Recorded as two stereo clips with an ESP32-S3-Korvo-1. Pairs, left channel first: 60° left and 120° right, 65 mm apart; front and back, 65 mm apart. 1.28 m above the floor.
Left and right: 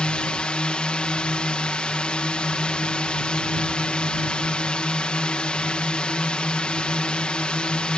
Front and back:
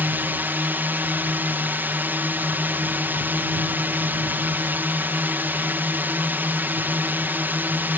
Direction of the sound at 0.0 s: 130° left.